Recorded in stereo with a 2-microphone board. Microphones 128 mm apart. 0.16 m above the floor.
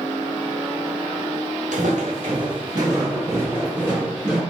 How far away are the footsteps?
About 1.9 m.